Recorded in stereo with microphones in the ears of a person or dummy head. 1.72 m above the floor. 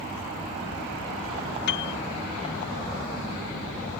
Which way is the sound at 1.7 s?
70° left (ahead or behind).